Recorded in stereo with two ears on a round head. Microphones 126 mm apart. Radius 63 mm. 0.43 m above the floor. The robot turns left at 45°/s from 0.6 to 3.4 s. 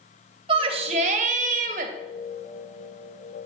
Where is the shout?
45° right, 2.5 m; by 1.9 s 105° right, 2.5 m.